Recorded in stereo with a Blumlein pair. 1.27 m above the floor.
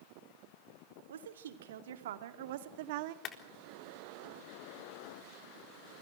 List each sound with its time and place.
1.1 s a woman speaking: 60° right, 3.5 m; by 3.1 s 45° right, 1.7 m
3.2 s a clap: 30° left, 3.5 m